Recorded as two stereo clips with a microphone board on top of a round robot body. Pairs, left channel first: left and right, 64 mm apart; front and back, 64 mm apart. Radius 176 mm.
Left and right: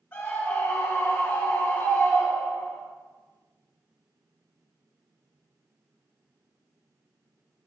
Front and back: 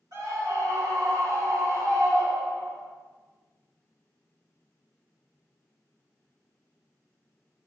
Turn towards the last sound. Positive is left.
turn(degrees=165)